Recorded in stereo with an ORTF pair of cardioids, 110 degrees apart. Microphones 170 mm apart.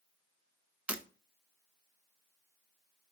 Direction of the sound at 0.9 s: 10° right.